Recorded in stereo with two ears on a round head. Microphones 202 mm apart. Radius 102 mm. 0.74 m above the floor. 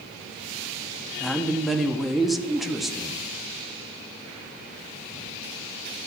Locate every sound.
1.2 s a man speaking: centre (ahead or behind), 0.7 m